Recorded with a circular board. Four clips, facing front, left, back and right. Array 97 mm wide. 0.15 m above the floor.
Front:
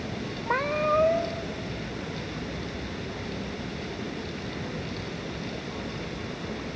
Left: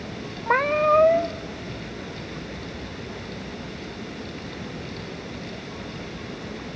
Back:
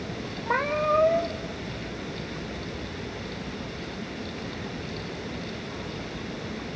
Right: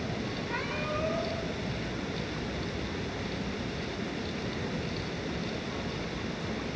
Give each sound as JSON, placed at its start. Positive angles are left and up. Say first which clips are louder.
{"t": 0.5, "sound": "a cat meowing", "louder": "left 19 dB, back 1 dB", "azimuth_deg": 90, "distance_m": 0.9}